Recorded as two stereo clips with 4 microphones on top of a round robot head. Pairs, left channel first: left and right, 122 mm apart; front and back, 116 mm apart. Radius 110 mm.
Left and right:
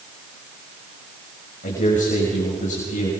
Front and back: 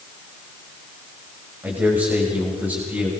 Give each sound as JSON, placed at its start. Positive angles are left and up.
{"t": 1.6, "sound": "a man speaking", "azimuth_deg": 105, "distance_m": 6.0}